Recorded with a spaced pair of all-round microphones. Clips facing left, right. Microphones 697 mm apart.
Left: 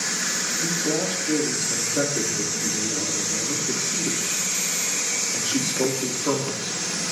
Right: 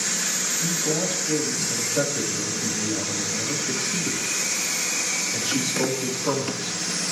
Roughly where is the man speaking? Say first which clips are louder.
Left 1 dB; right.